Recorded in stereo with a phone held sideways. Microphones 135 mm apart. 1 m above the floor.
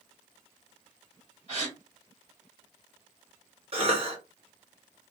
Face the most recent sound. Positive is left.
turn(degrees=-45)  # may be behind; listen again after turning